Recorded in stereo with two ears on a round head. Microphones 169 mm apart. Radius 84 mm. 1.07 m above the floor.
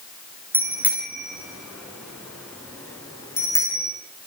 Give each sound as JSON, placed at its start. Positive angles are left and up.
{"t": 0.5, "sound": "a bicycle bell", "side_deg": -10, "distance_m": 7.0}